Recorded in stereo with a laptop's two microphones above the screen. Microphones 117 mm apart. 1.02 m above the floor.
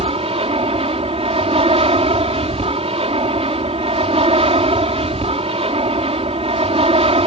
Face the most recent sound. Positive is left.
turn(degrees=-55)  # may be behind; listen again after turning